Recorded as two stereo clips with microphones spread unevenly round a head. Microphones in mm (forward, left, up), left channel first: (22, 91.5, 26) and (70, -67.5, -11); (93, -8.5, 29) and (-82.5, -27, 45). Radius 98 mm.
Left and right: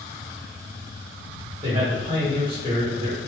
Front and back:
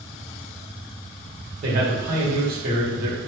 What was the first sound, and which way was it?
A man speaking, 135° right.